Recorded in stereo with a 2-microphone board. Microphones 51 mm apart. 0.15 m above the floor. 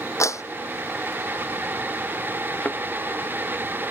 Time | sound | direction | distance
0.2 | a clap | 80° left | ?
2.6 | a thud | 25° left (ahead or behind) | ?